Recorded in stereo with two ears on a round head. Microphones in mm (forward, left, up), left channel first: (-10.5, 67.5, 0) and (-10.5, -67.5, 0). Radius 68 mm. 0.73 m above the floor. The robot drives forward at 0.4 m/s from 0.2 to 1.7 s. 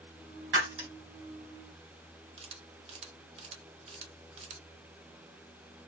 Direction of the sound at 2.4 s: 40° right (ahead or behind).